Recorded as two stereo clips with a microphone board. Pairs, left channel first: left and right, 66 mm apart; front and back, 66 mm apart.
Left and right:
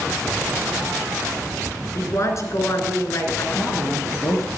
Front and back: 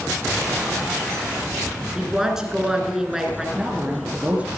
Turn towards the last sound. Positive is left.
turn(degrees=110)